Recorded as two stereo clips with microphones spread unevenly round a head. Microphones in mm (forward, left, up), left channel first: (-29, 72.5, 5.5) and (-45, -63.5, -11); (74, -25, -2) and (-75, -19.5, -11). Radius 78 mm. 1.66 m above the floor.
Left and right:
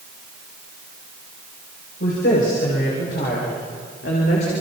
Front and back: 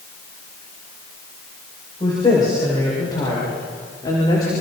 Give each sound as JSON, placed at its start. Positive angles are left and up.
{"t": 2.0, "sound": "a woman speaking", "azimuth_deg": 65, "distance_m": 8.5}